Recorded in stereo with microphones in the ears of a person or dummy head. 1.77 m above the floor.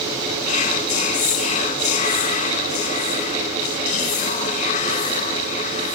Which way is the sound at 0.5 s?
45° left (ahead or behind).